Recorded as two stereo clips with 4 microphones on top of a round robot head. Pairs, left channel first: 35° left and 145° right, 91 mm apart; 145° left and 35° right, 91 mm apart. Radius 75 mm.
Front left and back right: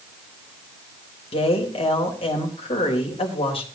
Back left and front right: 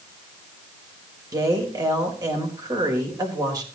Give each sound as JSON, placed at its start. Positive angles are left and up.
{"t": 1.3, "sound": "a woman speaking", "azimuth_deg": 15, "distance_m": 3.5}